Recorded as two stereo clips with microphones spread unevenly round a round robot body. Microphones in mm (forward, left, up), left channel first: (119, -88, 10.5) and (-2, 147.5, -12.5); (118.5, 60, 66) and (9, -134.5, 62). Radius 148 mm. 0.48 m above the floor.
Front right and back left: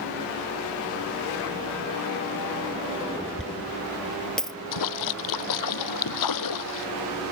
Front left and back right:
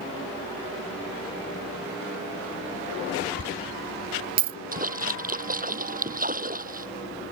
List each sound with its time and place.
3.4 s a dropped coin: 150° right
4.7 s a splash: 65° right